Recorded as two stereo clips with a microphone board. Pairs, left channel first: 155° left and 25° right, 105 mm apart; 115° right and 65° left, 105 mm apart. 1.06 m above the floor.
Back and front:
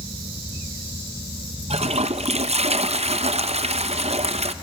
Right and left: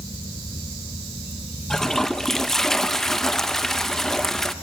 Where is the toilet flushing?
25° right, 0.6 m.